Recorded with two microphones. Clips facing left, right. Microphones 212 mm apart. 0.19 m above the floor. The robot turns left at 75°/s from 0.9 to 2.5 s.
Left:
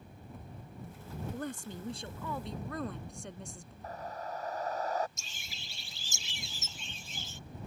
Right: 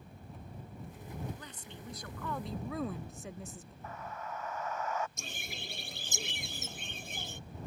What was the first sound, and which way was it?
A woman speaking, 85° left.